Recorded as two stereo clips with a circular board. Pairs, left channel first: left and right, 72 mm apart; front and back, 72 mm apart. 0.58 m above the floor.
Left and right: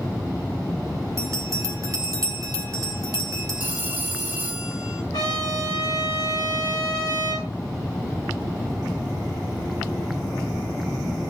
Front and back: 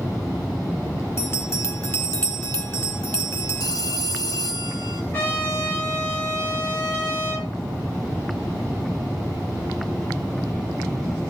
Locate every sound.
1.2 s a bell: 50° right, 3 m
3.6 s a phone ringing: 25° right, 2.5 m
5.1 s a trumpet: 60° left, 9.5 m